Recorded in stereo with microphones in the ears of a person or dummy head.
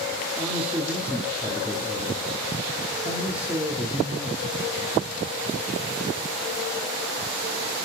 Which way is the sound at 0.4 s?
10° right (ahead or behind).